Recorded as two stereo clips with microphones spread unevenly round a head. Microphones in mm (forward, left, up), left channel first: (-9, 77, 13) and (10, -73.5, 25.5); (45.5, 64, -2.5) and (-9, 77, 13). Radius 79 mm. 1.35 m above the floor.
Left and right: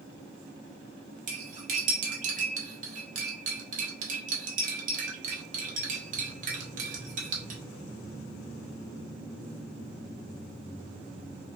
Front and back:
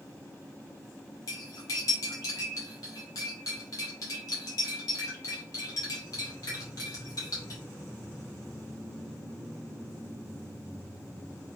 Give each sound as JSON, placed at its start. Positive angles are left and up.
{"t": 1.3, "sound": "cutlery clinking", "azimuth_deg": -60, "distance_m": 1.0}